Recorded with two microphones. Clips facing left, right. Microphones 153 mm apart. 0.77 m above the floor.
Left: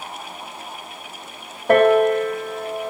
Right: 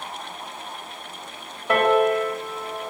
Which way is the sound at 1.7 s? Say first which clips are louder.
Left 5 dB; 55° left (ahead or behind).